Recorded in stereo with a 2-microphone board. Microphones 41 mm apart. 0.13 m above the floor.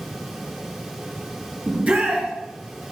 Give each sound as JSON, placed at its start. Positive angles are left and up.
{"t": 1.7, "sound": "a shout", "side_deg": -25, "distance_m": 2.0}